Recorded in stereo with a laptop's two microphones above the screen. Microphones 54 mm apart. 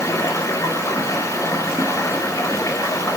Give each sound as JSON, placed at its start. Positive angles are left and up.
{"t": 0.0, "sound": "running water", "side_deg": 80, "distance_m": 2.5}